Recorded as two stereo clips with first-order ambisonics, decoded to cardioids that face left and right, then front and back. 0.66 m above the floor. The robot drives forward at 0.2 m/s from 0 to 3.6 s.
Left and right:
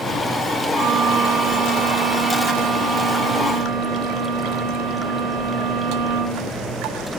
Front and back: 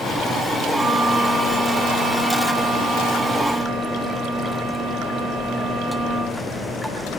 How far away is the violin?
About 1.6 m.